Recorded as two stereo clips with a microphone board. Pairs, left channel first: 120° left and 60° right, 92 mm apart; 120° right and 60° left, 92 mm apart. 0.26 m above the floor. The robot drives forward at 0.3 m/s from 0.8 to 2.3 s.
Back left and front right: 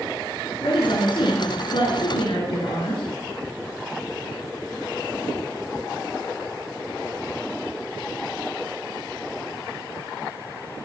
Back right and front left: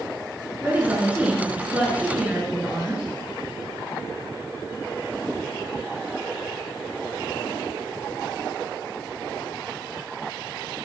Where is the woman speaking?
130° left, 2.5 m; by 3.0 s 135° left, 3 m.